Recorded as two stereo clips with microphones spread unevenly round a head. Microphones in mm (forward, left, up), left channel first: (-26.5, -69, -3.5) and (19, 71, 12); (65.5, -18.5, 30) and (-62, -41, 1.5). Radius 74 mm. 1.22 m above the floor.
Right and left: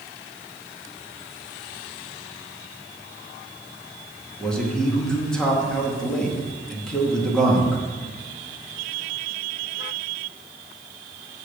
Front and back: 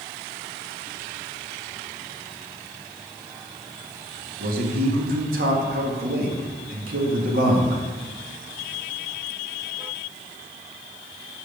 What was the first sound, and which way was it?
A man speaking, 165° left.